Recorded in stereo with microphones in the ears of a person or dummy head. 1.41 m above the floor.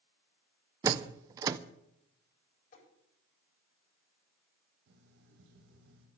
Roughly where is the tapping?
Left.